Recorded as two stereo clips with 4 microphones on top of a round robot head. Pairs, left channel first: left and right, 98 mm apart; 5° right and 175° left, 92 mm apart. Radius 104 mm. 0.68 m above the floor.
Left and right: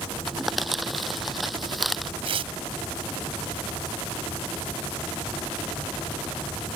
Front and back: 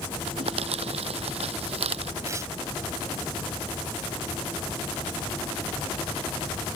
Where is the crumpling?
Straight behind.